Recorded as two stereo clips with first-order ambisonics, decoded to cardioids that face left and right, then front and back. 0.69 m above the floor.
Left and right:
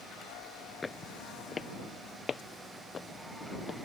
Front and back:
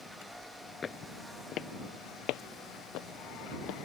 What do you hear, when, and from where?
0.8 s footsteps: 30° left; by 3.8 s 20° left